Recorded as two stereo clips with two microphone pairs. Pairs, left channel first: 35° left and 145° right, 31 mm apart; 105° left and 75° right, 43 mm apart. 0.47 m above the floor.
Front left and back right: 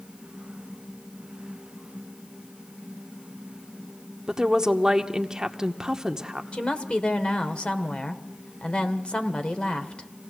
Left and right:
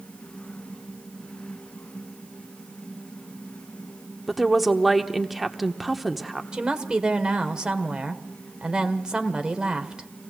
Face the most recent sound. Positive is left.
turn(degrees=-10)